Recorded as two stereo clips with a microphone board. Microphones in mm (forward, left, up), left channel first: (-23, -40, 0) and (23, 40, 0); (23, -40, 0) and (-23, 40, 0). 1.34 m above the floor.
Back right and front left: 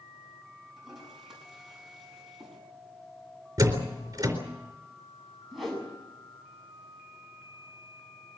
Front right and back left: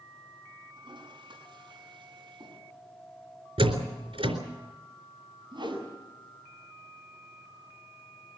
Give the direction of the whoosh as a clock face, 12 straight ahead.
7 o'clock.